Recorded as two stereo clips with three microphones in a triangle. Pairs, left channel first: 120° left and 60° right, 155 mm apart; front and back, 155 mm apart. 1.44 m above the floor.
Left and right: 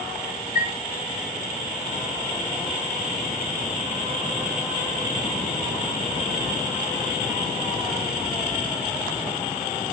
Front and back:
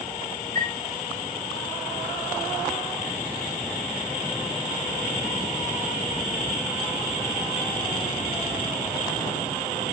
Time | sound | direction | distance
0.6 | a chime | 155° left | 6 m